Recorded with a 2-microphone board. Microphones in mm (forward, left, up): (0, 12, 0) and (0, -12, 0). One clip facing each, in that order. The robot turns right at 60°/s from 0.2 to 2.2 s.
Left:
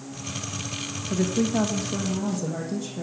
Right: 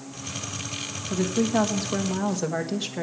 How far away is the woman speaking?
About 1.3 m.